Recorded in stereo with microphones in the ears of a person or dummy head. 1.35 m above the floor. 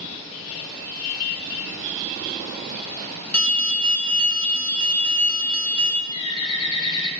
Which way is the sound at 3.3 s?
10° left (ahead or behind).